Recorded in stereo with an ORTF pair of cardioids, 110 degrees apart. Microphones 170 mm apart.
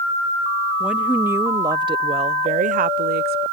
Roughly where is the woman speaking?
Ahead.